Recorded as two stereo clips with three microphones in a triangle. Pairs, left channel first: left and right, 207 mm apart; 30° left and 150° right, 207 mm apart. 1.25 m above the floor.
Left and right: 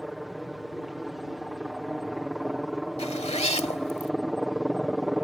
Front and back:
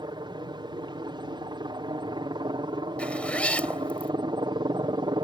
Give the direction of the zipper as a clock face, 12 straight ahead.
8 o'clock.